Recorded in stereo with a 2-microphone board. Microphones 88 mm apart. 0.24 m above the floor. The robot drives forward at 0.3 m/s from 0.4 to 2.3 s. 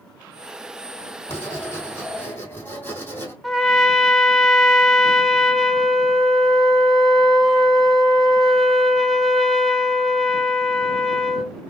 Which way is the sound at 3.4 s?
Centre (ahead or behind).